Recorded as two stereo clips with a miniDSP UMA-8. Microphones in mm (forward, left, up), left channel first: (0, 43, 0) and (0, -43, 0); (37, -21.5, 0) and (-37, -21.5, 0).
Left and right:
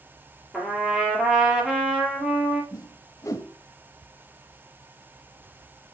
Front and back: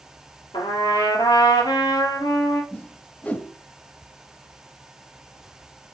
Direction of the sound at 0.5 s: 5° right.